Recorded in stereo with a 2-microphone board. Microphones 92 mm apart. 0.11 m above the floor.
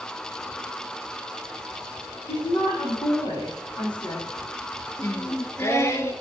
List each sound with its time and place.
2.3 s a woman speaking: 50° left (ahead or behind), 5 m
5.0 s singing: 30° left (ahead or behind), 0.7 m